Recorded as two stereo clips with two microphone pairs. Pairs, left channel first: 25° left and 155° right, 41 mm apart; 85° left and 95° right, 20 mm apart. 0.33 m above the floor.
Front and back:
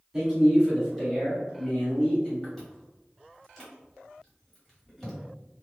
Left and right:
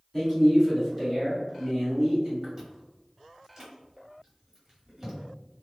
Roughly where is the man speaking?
Behind left.